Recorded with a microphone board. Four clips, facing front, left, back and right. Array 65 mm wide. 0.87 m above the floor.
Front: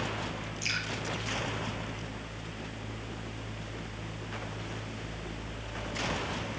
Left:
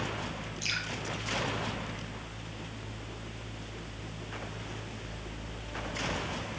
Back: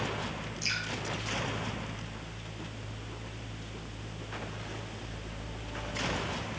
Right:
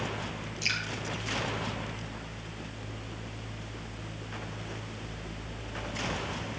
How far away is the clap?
I don't hear a clap.